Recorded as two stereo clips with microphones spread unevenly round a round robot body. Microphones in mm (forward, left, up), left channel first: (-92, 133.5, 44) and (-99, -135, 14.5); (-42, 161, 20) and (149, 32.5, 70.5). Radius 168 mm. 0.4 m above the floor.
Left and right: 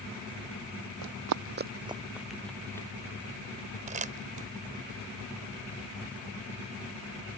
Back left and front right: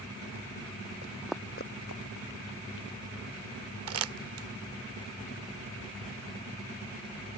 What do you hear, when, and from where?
1.0 s running footsteps: 90° right; by 2.9 s 170° left
3.9 s crumpling: 35° right